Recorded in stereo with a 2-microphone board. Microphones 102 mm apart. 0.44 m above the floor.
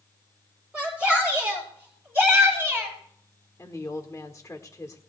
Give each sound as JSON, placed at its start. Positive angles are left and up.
{"t": 0.7, "sound": "a shout", "side_deg": -15, "distance_m": 8.5}
{"t": 3.6, "sound": "a woman speaking", "side_deg": 30, "distance_m": 1.4}